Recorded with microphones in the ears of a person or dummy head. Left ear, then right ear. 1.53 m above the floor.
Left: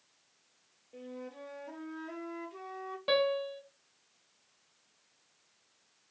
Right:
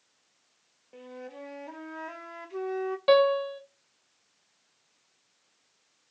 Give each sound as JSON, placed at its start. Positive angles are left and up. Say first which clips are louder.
{"t": 0.9, "sound": "a flute", "louder": "right 2 dB", "side_deg": -50, "distance_m": 0.6}
{"t": 3.1, "sound": "a piano", "louder": "right 8 dB", "side_deg": -30, "distance_m": 0.5}